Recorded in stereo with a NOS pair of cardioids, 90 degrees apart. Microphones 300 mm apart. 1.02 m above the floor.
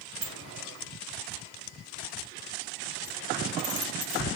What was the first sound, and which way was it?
A sliding door, 70° right.